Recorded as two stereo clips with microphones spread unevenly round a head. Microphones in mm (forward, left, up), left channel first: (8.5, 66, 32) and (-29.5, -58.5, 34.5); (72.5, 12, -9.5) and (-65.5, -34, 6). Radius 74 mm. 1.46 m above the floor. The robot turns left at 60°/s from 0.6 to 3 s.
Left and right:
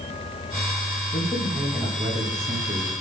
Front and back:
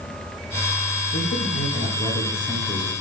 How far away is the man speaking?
About 2 m.